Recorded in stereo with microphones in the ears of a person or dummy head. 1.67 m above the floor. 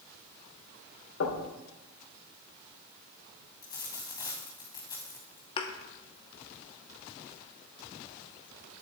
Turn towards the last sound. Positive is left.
turn(degrees=30)  # may be behind; listen again after turning